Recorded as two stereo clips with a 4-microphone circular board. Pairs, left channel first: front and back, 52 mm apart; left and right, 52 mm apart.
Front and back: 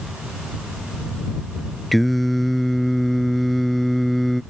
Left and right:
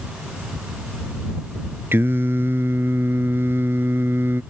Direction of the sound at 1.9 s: 90° right.